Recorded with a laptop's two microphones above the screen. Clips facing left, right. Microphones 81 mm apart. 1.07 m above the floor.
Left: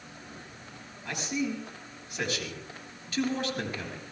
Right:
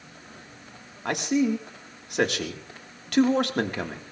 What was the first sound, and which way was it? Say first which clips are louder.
A man speaking: right 8 dB; 70° right (ahead or behind).